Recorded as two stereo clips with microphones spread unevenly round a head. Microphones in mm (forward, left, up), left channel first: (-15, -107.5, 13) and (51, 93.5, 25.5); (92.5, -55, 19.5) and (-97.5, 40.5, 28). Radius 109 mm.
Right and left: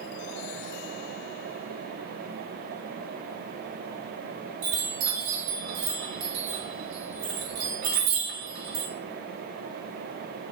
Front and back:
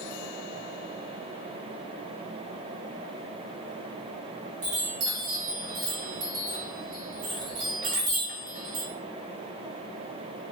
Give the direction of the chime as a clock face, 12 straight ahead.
9 o'clock.